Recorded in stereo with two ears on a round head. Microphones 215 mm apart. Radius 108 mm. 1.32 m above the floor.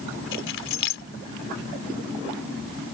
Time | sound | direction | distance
0.3 | keys jangling | 60° left (ahead or behind) | ?